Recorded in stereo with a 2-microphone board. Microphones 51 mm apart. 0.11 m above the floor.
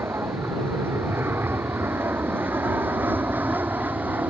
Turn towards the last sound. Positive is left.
turn(degrees=-35)  # may be behind; listen again after turning